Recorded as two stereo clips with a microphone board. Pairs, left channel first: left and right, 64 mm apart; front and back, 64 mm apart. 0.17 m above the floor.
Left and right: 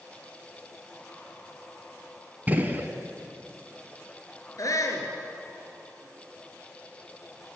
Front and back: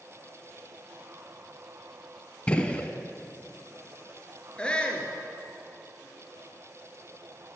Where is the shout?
75° left, 2.5 m.